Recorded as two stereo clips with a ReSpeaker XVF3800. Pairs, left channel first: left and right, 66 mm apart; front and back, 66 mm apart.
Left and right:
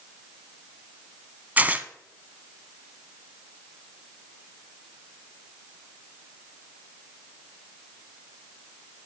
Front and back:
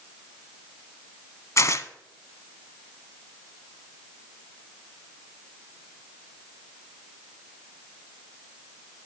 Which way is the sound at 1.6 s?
30° right.